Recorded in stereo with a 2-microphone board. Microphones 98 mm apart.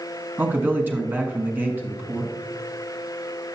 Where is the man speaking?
20° right (ahead or behind), 1.3 m.